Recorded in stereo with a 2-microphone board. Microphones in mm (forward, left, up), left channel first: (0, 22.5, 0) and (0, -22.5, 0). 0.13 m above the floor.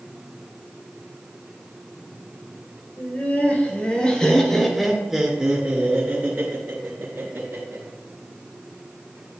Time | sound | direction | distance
3.0 | laughter | 35° left (ahead or behind) | 3.5 m